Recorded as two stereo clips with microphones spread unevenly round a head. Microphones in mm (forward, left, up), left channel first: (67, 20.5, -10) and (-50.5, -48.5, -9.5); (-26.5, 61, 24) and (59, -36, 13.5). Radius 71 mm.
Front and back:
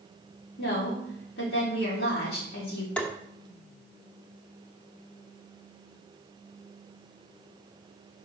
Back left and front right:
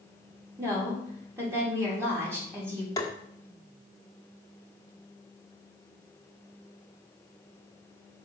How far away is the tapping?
About 1.0 m.